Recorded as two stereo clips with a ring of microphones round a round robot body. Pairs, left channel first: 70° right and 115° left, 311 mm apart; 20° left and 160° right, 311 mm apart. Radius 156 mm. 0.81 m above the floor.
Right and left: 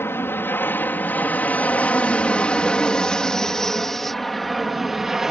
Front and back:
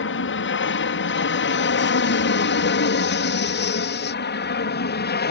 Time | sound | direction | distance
0.0 | an aircraft | 10° left | ?